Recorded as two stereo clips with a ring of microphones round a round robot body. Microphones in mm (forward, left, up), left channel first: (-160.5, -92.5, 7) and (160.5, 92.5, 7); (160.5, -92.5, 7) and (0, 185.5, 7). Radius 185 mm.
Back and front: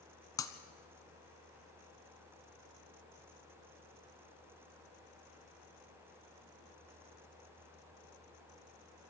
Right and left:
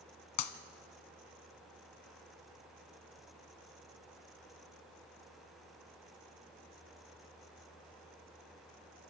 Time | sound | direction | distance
0.4 | breaking glass | 70° right | 1.1 m